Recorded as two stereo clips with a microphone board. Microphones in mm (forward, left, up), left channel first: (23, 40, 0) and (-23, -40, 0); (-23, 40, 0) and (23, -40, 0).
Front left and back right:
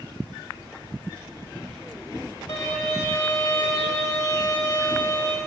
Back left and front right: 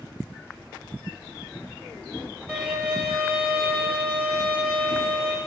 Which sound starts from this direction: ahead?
A violin, at 2.5 s.